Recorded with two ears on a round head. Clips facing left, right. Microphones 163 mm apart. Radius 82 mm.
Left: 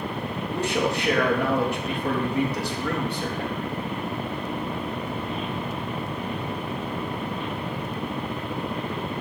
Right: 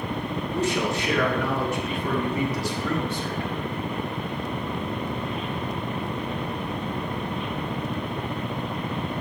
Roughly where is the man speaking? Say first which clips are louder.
Left 1 dB; left.